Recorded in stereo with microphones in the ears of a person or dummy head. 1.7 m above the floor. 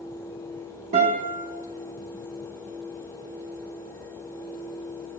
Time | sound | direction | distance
0.9 | a guitar | 50° right (ahead or behind) | 1.5 m